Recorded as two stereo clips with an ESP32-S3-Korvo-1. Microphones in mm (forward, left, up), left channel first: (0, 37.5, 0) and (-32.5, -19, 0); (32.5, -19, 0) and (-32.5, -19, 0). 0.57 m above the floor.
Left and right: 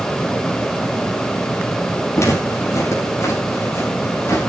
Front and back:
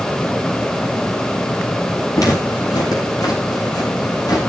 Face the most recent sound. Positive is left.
turn(degrees=15)